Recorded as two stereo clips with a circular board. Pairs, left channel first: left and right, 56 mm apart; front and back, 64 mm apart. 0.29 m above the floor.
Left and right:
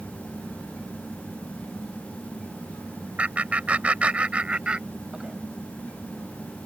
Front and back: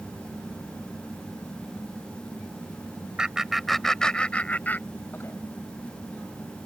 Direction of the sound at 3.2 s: 115° right.